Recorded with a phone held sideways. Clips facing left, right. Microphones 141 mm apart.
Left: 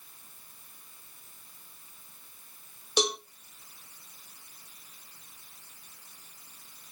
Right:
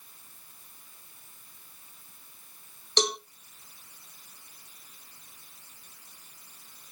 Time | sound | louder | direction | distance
3.0 | a cowbell | even | 10° left (ahead or behind) | 0.6 m